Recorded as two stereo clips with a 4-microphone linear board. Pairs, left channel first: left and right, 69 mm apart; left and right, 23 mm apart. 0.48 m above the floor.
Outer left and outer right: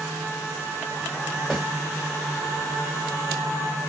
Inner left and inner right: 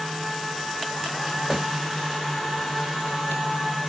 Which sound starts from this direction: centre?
A snare drum, at 1.5 s.